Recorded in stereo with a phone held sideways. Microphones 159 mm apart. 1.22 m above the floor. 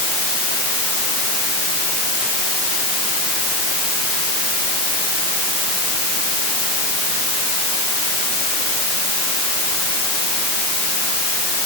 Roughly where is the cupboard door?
No cupboard door in this recording.